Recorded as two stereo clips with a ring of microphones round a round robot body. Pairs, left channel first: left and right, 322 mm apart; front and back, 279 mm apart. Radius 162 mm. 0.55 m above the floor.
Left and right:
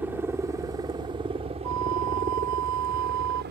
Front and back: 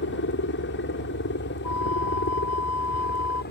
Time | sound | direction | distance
0.0 | a helicopter | 10° right | ?
1.6 | a flute | 50° right | ?